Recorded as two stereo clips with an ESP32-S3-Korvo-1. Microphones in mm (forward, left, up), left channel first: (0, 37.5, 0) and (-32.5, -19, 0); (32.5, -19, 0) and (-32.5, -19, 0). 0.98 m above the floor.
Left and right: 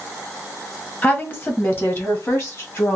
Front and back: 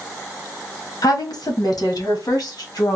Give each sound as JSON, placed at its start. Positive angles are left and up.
{"t": 1.0, "sound": "a woman speaking", "azimuth_deg": 0, "distance_m": 1.1}